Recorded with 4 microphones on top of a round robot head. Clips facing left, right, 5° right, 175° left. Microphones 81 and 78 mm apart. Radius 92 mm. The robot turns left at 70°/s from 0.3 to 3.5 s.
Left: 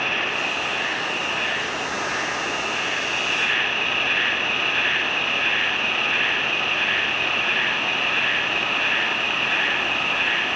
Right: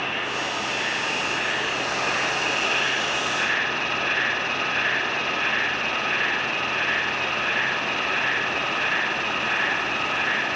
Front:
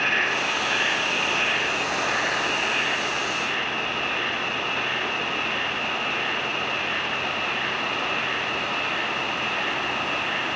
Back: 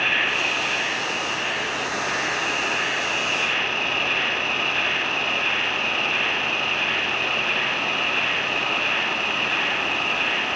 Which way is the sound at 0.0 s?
65° left.